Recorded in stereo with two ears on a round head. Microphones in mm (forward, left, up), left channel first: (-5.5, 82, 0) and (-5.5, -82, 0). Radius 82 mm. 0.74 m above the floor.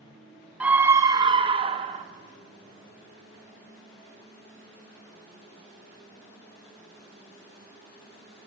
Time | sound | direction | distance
0.6 | a scream | 5° right (ahead or behind) | 0.8 m